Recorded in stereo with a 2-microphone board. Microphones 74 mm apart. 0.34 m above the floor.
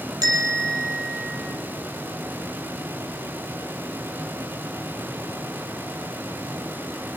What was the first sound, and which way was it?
A bell, 60° right (ahead or behind).